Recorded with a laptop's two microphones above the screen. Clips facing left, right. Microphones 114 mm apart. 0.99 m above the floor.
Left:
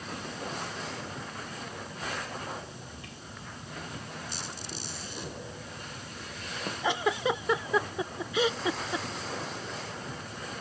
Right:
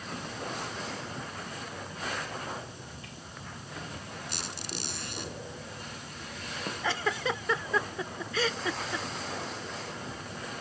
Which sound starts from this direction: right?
A squeak, at 4.3 s.